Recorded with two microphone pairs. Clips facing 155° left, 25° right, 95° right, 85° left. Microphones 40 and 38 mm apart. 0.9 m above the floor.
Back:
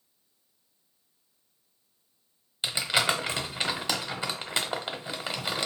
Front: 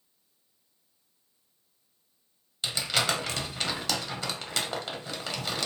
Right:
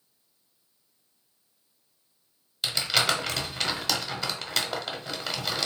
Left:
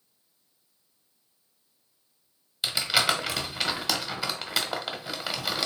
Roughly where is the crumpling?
Behind left.